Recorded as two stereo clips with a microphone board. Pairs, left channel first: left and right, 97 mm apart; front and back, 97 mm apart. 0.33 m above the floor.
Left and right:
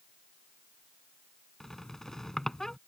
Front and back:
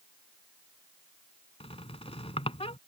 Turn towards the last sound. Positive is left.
turn(degrees=5)